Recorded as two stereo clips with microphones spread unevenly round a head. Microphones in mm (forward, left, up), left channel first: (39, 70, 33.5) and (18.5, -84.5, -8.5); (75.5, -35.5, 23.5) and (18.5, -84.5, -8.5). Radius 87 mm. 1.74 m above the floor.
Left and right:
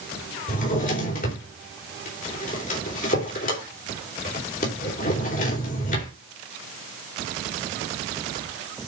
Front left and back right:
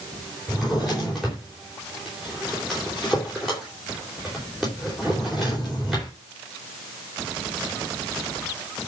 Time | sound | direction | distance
0.5 | a drawer | 125° left | 4 m